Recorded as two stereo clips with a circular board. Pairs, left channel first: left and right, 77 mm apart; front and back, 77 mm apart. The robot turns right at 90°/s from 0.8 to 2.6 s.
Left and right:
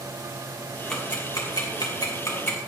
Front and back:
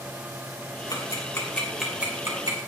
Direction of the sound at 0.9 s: 10° left.